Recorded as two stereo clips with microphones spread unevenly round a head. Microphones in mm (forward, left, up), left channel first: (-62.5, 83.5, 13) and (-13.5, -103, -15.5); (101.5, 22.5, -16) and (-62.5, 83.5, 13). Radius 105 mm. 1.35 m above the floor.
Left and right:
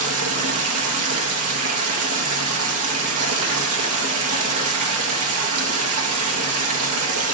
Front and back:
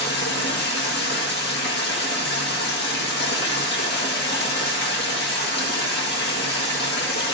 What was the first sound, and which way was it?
Running water, 65° right.